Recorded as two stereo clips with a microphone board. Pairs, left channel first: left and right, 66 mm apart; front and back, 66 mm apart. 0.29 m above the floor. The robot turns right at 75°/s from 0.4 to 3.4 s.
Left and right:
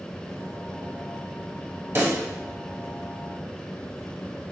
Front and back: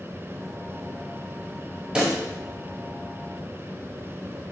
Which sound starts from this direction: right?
A pop, at 1.9 s.